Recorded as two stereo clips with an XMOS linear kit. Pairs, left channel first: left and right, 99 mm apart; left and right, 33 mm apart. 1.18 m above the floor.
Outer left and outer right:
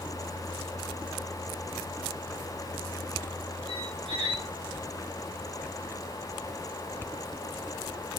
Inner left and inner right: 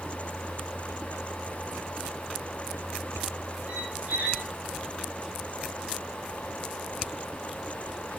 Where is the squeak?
55° right (ahead or behind), 1.3 m.